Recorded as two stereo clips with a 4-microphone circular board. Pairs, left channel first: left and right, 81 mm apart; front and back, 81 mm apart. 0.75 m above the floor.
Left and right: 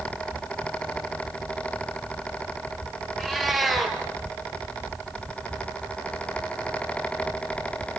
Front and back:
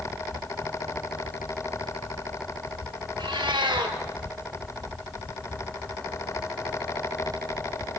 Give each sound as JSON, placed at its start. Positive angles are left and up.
{"t": 3.2, "sound": "a cat meowing", "azimuth_deg": 180, "distance_m": 3.5}